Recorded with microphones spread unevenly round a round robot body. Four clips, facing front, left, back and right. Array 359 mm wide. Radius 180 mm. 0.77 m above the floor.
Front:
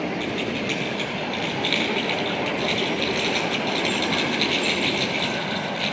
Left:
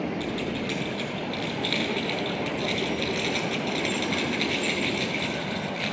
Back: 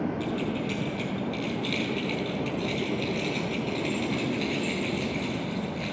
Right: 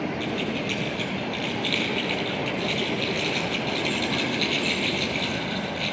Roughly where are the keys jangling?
Ahead left.